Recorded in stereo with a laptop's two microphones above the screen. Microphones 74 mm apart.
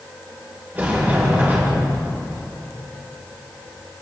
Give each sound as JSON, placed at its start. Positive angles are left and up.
{"t": 0.8, "sound": "a sliding door", "side_deg": -30, "distance_m": 1.7}